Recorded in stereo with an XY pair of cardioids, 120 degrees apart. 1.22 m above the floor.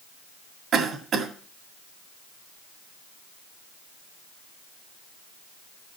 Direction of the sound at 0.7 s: 55° right.